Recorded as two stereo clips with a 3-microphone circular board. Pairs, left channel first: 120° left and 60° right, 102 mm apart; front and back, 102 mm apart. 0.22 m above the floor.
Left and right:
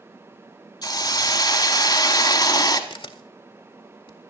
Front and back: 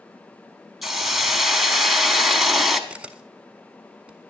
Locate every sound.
0.8 s a hiss: 95° left, 0.9 m
2.9 s a camera shutter: 105° left, 0.6 m